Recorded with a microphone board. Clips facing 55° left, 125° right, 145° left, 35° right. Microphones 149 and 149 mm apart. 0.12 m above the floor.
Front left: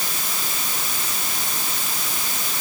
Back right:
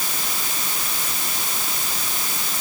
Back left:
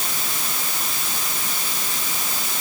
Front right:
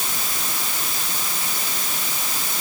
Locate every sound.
Only background noise.